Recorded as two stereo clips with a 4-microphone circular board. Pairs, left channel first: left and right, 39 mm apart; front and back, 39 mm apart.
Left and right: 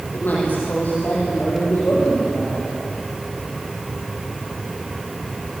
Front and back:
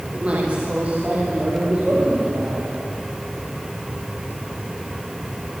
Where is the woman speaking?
120° left, 7 m; by 2.7 s 140° left, 8.5 m.